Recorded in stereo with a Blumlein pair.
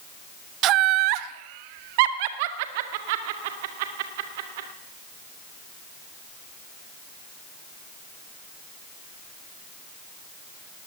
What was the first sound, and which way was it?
Laughter, 35° right.